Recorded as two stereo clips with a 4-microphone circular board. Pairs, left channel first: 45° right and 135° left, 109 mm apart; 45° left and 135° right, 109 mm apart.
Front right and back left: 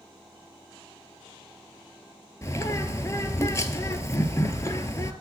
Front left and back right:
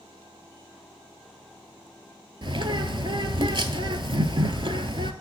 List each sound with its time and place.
2.4 s a bird: 105° right, 0.6 m